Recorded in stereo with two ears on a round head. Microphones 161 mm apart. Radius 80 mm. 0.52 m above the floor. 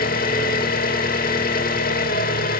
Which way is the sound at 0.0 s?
50° left (ahead or behind).